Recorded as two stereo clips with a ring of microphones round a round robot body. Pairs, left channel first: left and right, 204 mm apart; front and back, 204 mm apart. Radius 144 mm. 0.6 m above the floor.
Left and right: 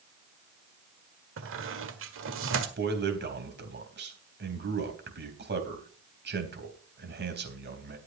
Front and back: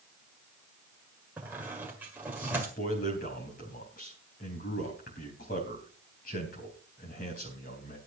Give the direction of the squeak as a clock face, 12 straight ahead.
3 o'clock.